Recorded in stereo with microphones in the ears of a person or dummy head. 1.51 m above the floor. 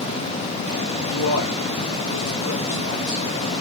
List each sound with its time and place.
1.1 s a man speaking: 65° left (ahead or behind), 5.5 m